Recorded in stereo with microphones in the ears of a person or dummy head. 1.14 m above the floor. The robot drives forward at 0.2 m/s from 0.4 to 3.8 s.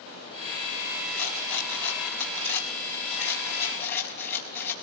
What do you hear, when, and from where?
1.1 s a rattle: 50° left (ahead or behind), 4 m; by 4.7 s 45° left (ahead or behind), 4.5 m